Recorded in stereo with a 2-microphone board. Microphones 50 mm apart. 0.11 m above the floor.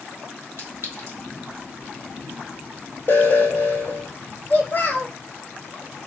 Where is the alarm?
55° left (ahead or behind), 2.0 m.